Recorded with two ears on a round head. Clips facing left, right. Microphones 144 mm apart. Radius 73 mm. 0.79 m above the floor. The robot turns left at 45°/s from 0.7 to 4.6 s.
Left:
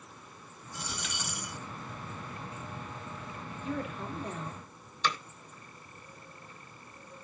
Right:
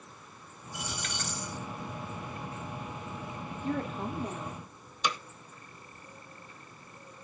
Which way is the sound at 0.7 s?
170° right.